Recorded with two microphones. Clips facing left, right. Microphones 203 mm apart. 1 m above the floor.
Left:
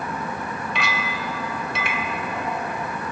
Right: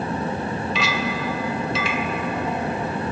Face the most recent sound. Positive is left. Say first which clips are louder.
# right 4 dB
turn(degrees=55)  # may be behind; listen again after turning